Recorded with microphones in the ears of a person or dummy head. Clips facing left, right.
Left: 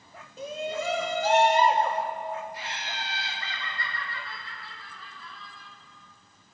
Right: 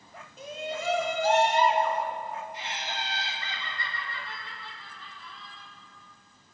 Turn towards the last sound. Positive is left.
turn(degrees=-25)  # may be behind; listen again after turning